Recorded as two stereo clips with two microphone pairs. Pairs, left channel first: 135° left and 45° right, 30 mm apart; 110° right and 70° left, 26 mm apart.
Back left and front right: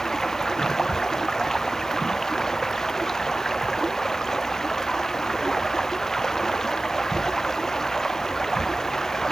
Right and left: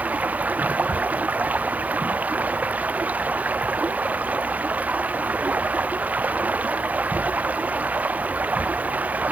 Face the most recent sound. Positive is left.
turn(degrees=65)